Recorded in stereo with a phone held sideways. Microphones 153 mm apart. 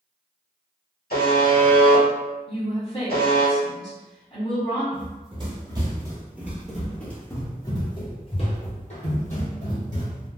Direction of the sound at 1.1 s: 85° left.